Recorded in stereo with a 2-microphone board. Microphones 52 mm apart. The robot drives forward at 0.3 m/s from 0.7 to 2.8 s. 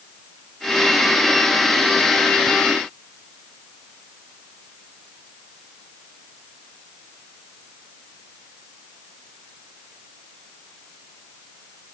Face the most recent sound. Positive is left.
No sound to turn to.